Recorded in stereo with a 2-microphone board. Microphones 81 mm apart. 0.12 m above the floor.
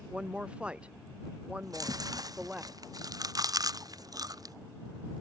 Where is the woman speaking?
15° right (ahead or behind).